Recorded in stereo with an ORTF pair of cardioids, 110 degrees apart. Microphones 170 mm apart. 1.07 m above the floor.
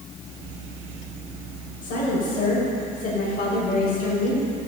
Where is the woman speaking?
60° left, 5 m.